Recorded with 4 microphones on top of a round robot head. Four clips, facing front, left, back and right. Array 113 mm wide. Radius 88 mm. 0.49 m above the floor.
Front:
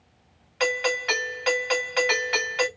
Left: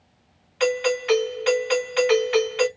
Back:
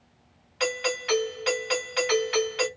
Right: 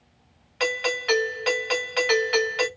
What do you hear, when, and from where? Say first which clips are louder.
0.6 s a doorbell: left 5 dB, front 3 dB; 35° right, 2 m